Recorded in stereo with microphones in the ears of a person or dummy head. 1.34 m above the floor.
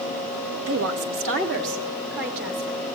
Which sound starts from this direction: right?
A woman speaking, at 0.7 s.